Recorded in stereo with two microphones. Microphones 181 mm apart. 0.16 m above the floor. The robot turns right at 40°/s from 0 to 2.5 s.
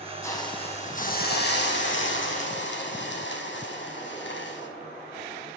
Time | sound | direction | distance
0.2 | a hiss | 15° left | 2.5 m